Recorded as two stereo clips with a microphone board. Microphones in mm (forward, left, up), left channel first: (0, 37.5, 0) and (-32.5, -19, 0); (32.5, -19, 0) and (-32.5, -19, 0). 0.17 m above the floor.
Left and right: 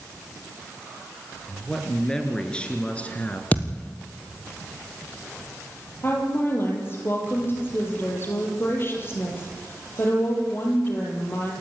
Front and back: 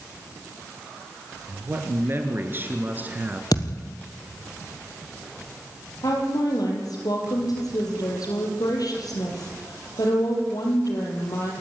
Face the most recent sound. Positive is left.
turn(degrees=10)